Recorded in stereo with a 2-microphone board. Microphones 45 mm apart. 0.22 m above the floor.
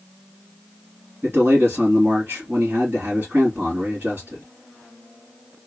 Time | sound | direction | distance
1.2 | a man speaking | 45° right (ahead or behind) | 2.5 m